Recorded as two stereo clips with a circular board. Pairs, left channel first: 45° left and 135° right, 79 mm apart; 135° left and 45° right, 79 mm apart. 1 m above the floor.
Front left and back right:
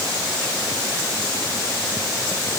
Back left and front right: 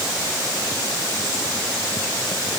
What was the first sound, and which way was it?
Only background noise.